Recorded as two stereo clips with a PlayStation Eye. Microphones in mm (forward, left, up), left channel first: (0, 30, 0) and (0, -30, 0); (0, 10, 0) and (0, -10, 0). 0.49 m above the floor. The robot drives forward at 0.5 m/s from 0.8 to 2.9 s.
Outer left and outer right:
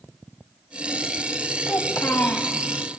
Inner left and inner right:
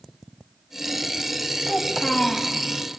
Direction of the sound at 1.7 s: 40° left (ahead or behind).